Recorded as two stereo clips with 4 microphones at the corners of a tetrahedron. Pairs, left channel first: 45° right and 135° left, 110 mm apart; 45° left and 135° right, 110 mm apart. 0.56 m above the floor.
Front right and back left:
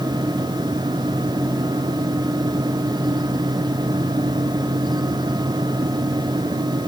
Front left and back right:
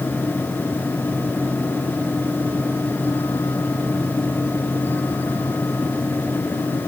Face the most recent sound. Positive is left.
No sound to turn to.